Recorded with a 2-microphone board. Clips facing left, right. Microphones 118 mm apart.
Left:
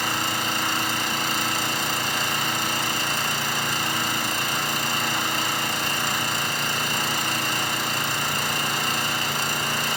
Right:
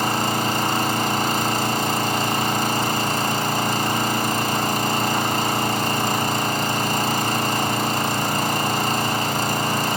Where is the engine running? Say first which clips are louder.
Right 6 dB; 45° right (ahead or behind), 0.9 m.